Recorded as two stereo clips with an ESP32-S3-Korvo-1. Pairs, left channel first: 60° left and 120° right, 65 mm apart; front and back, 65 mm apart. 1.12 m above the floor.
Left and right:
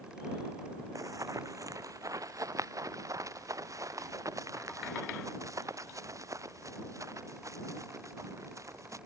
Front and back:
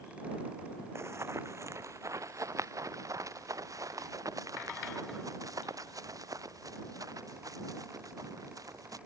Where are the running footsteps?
140° right; by 9.0 s 155° right.